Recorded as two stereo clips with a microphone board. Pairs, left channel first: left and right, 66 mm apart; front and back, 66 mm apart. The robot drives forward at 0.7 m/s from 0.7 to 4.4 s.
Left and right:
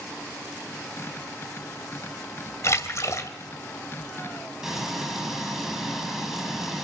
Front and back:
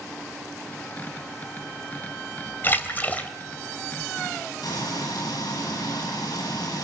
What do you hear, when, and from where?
2.6 s a splash: 50° left, 2.5 m; by 3.3 s 60° left, 2 m
4.6 s frying: 5° right, 9 m